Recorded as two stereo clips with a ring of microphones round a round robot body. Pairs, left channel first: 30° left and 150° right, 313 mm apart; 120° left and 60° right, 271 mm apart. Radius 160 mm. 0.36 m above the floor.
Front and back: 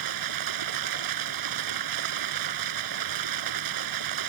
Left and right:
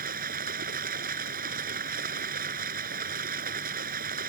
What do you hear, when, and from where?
0.0 s running water: 125° right